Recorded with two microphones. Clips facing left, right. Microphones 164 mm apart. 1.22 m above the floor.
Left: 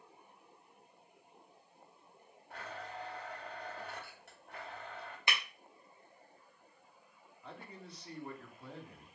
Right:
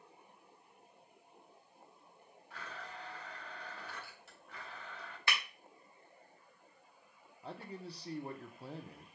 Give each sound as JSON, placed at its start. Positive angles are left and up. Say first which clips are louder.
{"t": 2.5, "sound": "a blender", "louder": "left 4 dB", "side_deg": 60, "distance_m": 2.0}
{"t": 5.3, "sound": "breaking glass", "louder": "even", "side_deg": 20, "distance_m": 0.8}
{"t": 7.4, "sound": "a man speaking", "louder": "right 5 dB", "side_deg": -35, "distance_m": 0.7}